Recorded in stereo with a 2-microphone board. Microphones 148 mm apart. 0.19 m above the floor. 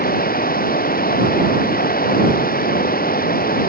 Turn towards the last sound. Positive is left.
turn(degrees=80)